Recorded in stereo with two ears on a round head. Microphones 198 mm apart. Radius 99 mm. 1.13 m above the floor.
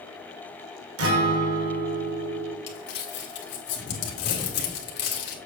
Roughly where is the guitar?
Right.